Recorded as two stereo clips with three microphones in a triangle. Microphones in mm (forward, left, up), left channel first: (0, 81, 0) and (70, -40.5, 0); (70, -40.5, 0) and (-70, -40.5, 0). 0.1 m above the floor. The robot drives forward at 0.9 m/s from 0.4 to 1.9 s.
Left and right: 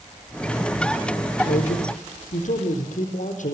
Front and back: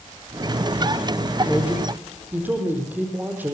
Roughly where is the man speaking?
Left.